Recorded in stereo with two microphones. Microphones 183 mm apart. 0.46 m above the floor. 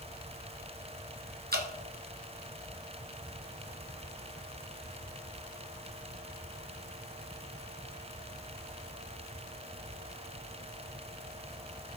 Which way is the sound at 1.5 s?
65° right (ahead or behind).